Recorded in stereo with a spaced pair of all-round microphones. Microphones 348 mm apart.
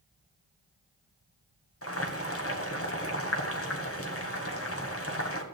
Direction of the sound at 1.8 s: 40° left (ahead or behind).